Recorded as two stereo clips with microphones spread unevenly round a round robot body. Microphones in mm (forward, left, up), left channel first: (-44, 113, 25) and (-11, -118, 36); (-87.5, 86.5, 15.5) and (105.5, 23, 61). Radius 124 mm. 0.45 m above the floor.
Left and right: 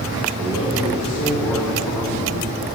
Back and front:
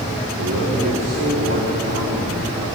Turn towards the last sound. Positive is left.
turn(degrees=25)